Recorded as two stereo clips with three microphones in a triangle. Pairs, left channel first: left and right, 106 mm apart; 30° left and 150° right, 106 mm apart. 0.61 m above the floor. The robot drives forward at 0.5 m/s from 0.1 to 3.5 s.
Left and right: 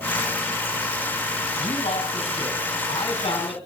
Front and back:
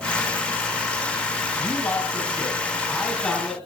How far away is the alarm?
I don't hear an alarm.